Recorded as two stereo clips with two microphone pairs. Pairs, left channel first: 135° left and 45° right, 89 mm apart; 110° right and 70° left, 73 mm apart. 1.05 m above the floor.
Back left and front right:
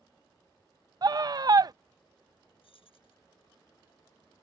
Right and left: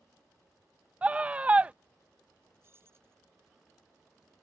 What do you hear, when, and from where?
1.0 s a scream: straight ahead
2.6 s keys jangling: 125° left